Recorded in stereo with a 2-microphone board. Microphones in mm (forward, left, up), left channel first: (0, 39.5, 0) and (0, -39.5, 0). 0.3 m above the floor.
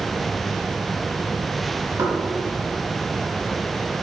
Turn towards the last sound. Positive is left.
turn(degrees=-45)  # may be behind; listen again after turning